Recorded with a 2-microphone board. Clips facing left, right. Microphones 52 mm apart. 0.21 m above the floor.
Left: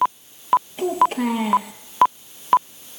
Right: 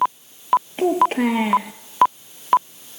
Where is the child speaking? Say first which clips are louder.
Right 2 dB; 40° right (ahead or behind), 3.5 m.